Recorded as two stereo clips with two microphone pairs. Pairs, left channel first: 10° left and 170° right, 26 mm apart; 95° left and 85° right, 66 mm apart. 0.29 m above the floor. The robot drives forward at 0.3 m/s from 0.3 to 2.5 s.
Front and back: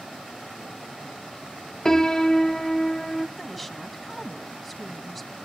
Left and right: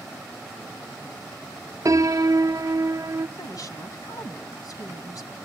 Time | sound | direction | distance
1.9 | a piano | 50° right | 0.6 m
3.4 | a woman speaking | 105° left | 2.5 m